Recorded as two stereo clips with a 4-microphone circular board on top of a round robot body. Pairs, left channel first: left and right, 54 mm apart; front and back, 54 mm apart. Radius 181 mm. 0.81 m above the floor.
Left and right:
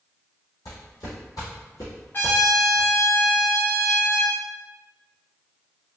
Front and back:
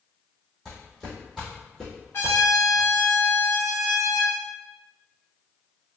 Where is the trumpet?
40° left, 0.7 m.